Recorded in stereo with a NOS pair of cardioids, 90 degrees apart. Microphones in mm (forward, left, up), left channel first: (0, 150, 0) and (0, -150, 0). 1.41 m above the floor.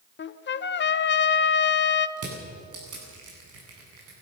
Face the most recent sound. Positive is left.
turn(degrees=-55)